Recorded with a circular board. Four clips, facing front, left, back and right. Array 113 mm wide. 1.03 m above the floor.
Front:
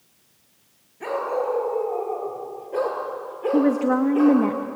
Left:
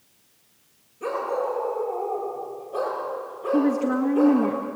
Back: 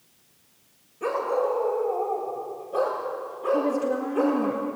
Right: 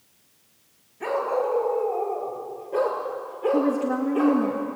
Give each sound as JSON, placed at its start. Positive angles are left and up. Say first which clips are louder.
{"t": 1.0, "sound": "a dog barking", "louder": "right 2 dB, even", "azimuth_deg": -60, "distance_m": 6.5}
{"t": 3.5, "sound": "a woman speaking", "louder": "left 3 dB, front 6 dB", "azimuth_deg": 5, "distance_m": 1.4}